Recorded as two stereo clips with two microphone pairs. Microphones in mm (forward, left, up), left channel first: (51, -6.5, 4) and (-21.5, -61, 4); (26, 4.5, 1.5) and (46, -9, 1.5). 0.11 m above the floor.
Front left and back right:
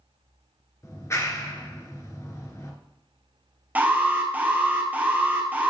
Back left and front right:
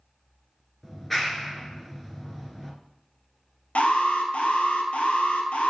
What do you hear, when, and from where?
0.8 s a clap: 60° left, 1.4 m
3.8 s an alarm: 145° left, 1.4 m